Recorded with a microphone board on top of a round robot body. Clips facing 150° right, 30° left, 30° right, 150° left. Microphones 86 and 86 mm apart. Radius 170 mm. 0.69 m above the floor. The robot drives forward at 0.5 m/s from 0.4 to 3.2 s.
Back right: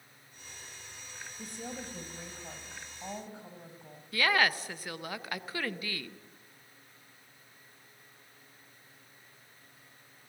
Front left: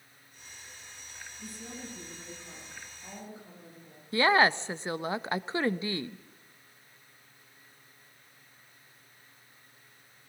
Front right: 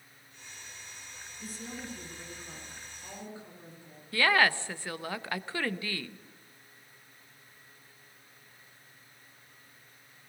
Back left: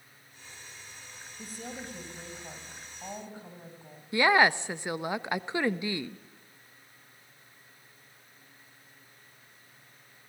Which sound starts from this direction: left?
A woman speaking, at 4.1 s.